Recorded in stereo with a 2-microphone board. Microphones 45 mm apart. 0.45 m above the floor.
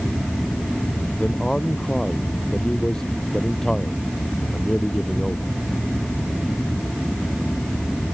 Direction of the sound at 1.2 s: 10° left (ahead or behind).